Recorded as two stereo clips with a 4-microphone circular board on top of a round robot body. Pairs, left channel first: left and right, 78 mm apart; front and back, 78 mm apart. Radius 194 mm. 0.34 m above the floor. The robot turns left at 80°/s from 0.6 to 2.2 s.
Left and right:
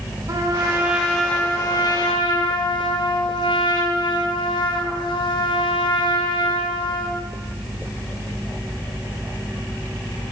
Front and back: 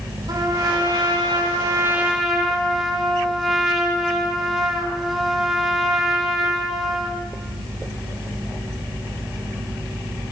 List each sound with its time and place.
0.3 s a trumpet: 140° right, 5.5 m; by 7.2 s 90° left, 5.5 m